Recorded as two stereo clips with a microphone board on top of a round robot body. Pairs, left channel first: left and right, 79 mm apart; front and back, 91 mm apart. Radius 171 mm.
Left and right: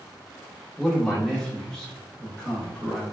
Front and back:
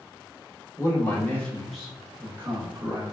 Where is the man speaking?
10° left, 1.4 m; by 3.0 s 175° left, 1.5 m.